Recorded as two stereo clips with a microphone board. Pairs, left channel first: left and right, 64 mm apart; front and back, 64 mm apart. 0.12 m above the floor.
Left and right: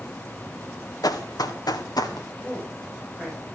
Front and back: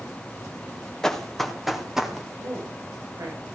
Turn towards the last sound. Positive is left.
turn(degrees=180)